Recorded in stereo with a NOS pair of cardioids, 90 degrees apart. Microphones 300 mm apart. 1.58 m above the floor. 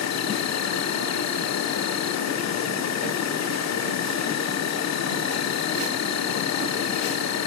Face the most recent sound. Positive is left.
turn(degrees=60)